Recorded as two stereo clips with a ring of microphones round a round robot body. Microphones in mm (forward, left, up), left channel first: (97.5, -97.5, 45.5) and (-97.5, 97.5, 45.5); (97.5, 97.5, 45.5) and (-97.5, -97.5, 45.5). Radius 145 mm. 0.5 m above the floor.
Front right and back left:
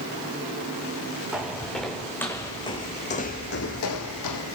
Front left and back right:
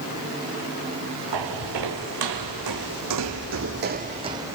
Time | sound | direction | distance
1.3 | footsteps | 140° right | 2 m